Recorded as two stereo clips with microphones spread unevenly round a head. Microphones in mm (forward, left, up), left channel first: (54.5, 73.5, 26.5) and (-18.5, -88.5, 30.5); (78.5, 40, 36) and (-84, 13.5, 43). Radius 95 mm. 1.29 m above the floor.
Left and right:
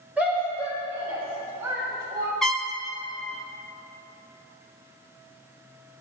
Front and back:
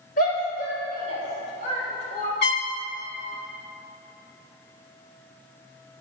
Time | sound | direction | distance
0.2 | a shout | 30° right | 5 m
2.4 | a trumpet | 20° right | 1.1 m